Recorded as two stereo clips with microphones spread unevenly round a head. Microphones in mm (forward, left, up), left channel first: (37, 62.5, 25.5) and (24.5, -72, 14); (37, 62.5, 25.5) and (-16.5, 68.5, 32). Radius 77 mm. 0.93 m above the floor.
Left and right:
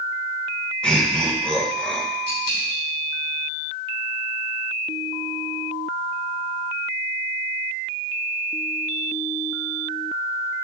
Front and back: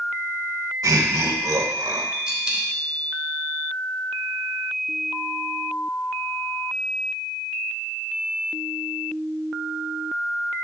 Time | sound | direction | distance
0.8 | laughter | 170° left | 1.4 m
2.3 | a dropped coin | 95° left | 3 m